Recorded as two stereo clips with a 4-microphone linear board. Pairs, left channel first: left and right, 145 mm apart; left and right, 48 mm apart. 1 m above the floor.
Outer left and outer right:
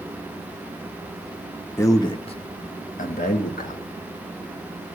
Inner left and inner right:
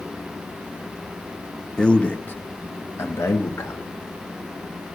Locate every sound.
1.8 s a man speaking: 20° left (ahead or behind), 0.7 m; by 3.8 s 85° left, 1.2 m